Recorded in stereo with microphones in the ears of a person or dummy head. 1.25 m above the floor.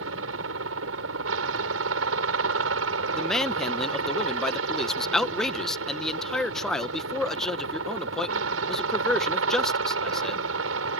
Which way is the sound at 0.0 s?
75° right (ahead or behind).